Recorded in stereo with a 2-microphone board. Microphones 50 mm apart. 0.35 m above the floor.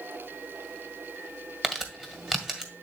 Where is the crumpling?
5° right (ahead or behind), 1.5 m.